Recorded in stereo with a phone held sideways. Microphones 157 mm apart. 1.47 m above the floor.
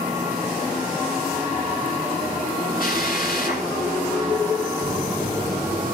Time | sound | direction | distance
2.8 | a drill | 65° left (ahead or behind) | 8 m
4.8 | a phone buzzing | 20° right (ahead or behind) | 3 m